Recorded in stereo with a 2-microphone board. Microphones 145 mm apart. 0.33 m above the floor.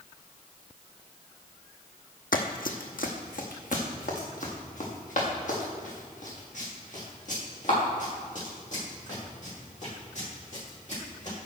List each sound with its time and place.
2.3 s running footsteps: 75° left (ahead or behind), 1.0 m; by 11.3 s 55° left (ahead or behind), 8 m